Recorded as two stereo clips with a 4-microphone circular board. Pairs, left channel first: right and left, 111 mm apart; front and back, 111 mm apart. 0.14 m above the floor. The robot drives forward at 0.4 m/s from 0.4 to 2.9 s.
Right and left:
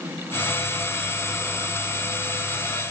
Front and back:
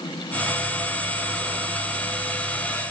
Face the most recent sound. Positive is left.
No sound to turn to.